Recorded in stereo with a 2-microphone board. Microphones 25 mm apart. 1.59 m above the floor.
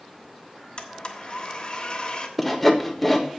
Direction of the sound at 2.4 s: 5° left (ahead or behind).